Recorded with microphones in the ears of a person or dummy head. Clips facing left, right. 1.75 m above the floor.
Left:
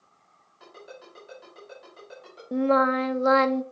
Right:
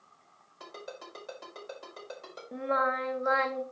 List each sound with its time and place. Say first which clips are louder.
0.6 s a ringtone: right 1 dB; 70° right (ahead or behind), 5 m
2.5 s singing: left 9 dB; 55° left (ahead or behind), 0.7 m